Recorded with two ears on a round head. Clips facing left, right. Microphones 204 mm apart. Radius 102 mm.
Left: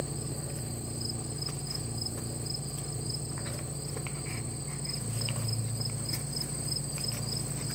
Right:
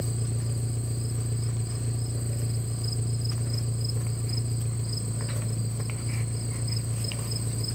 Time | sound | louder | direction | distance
0.0 | an engine running | right 3 dB | 25° right (ahead or behind) | 1.7 m